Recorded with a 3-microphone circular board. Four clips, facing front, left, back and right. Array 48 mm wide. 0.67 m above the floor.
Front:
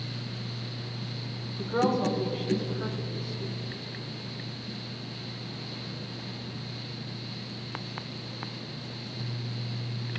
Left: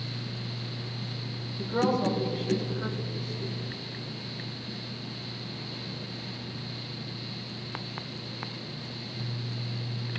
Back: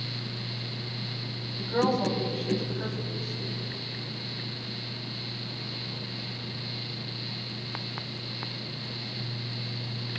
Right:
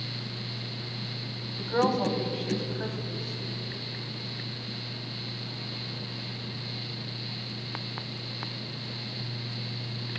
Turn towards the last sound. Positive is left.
turn(degrees=-105)